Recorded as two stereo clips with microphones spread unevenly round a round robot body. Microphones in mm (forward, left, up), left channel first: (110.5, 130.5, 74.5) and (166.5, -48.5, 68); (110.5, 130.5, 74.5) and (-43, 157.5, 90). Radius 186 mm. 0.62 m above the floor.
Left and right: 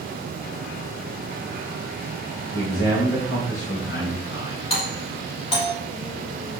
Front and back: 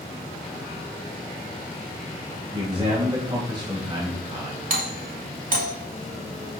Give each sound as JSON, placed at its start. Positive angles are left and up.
{"t": 2.5, "sound": "a man speaking", "azimuth_deg": 110, "distance_m": 4.0}
{"t": 4.7, "sound": "a doorbell", "azimuth_deg": 165, "distance_m": 2.5}